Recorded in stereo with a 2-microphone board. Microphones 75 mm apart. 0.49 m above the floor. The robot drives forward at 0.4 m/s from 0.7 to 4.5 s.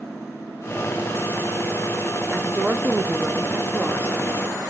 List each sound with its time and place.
2.3 s a woman speaking: 20° right (ahead or behind), 0.8 m